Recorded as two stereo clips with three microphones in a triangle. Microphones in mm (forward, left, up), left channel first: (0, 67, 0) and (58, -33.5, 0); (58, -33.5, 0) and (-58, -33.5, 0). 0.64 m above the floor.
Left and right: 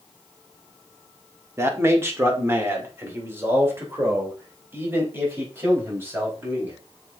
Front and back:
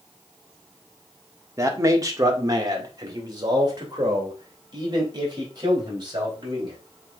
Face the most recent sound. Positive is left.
turn(degrees=-130)